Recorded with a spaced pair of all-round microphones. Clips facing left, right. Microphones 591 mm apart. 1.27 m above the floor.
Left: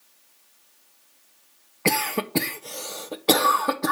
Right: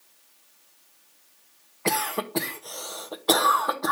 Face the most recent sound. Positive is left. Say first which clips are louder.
# left 3 dB
turn(degrees=50)  # may be behind; listen again after turning